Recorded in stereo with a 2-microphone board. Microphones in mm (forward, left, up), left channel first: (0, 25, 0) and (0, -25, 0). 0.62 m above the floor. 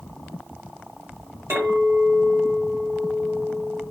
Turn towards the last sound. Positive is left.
turn(degrees=-75)  # may be behind; listen again after turning